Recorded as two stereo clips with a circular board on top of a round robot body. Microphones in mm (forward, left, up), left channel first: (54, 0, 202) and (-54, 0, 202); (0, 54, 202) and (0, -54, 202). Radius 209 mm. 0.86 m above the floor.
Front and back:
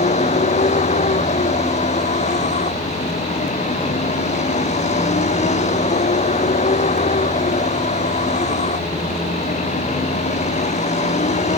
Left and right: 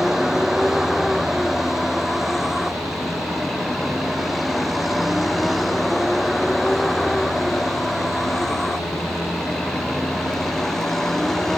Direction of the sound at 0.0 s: 5° right.